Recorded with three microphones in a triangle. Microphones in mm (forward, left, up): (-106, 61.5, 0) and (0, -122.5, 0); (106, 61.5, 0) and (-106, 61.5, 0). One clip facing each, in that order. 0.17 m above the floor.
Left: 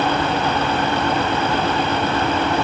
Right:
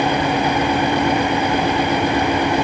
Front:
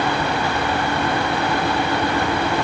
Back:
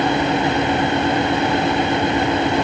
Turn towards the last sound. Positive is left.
No sound to turn to.